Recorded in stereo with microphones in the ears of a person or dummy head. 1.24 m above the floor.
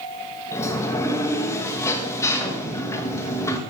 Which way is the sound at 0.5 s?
15° left (ahead or behind).